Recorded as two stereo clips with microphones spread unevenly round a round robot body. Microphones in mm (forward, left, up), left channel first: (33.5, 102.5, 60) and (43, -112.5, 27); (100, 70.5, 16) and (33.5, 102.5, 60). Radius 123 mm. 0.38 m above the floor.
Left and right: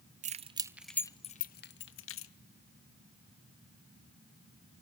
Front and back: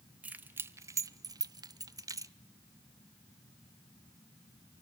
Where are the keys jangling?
100° right, 0.6 m; by 2.3 s 90° left, 0.9 m.